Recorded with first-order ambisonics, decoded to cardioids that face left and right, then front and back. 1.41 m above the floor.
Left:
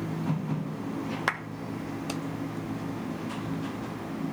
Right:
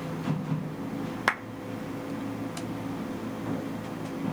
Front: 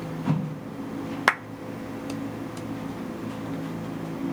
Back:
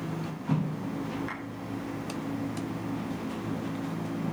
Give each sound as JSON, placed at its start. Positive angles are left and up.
{"t": 1.3, "sound": "a clap", "azimuth_deg": -10, "distance_m": 1.0}